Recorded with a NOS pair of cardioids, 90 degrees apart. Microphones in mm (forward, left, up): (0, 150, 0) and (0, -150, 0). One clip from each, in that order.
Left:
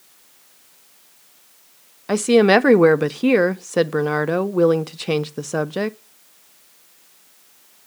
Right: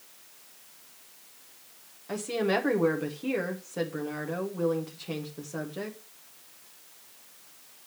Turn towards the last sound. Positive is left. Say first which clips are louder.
# left 14 dB
turn(degrees=70)